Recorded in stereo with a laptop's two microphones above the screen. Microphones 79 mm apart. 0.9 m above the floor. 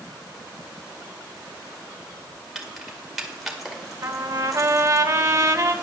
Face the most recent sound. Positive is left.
turn(degrees=-35)  # may be behind; listen again after turning